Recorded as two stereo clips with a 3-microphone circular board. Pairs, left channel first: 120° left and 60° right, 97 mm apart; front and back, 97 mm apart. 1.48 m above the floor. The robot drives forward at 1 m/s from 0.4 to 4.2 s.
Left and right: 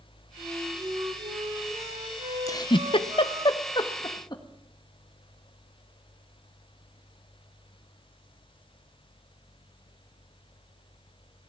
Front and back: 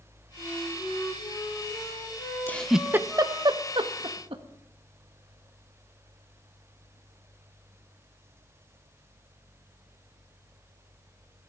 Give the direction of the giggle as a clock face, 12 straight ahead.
10 o'clock.